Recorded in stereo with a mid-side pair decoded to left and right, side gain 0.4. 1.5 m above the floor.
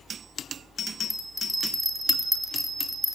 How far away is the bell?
About 6 m.